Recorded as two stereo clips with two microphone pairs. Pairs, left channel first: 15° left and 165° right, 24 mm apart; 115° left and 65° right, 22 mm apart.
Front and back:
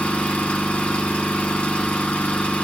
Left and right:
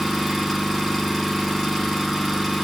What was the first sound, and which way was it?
An engine running, 10° left.